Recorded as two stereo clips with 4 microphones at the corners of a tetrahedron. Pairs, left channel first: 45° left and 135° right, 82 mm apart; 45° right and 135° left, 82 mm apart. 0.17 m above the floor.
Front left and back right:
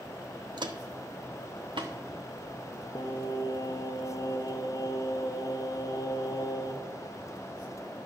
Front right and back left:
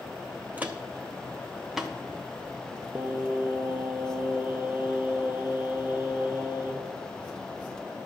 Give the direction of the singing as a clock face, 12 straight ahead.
10 o'clock.